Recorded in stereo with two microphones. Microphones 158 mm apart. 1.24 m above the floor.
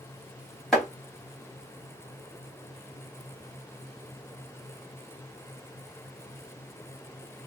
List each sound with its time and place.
0.7 s chopping: 5° left (ahead or behind), 1.4 m